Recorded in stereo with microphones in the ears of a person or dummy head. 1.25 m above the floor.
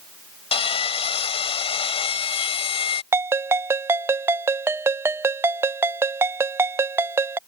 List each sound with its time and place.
0.5 s sawing: 30° left (ahead or behind)
3.1 s a ringtone: 10° right (ahead or behind)